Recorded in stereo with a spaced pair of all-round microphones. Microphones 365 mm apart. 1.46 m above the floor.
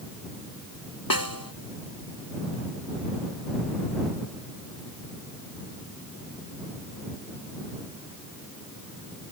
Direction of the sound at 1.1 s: 70° left (ahead or behind).